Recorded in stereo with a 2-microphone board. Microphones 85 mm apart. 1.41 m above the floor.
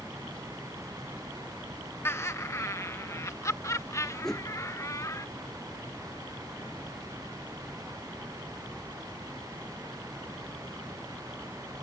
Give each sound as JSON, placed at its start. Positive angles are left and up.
{"t": 2.0, "sound": "laughter", "side_deg": 30}
{"t": 4.2, "sound": "a whoosh", "side_deg": 5}